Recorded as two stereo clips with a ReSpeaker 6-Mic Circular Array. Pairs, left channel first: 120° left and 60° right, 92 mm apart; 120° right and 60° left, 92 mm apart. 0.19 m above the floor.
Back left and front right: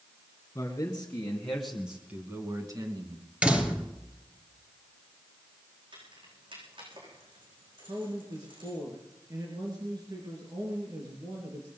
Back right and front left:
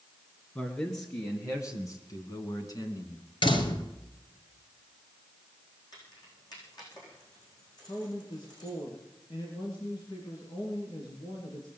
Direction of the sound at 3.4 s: 135° right.